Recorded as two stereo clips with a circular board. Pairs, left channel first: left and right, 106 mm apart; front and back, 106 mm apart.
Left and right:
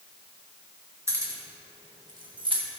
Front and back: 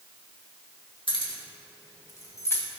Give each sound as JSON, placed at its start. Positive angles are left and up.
{"t": 1.1, "sound": "keys jangling", "azimuth_deg": -30, "distance_m": 2.0}